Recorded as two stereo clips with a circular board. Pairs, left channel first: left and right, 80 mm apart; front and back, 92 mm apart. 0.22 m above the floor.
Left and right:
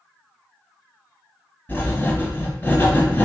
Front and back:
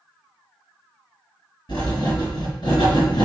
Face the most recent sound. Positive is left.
turn(degrees=30)